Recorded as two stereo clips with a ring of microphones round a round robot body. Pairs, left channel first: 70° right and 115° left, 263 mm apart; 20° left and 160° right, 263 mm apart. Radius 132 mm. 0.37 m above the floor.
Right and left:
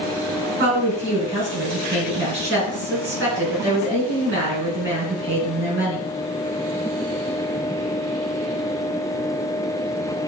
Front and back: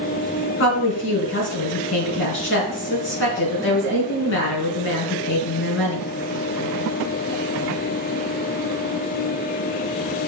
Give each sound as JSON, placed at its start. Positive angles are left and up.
{"t": 0.6, "sound": "a woman speaking", "azimuth_deg": 65, "distance_m": 4.0}